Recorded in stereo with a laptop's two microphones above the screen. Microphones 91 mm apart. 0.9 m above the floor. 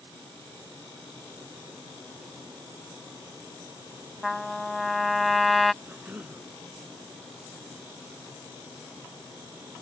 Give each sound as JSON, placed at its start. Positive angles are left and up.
{"t": 4.2, "sound": "a trumpet", "side_deg": 0}
{"t": 5.8, "sound": "a cough", "side_deg": -20}